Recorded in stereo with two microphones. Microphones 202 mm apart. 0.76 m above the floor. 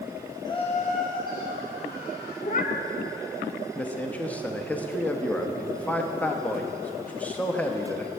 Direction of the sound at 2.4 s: 40° left (ahead or behind).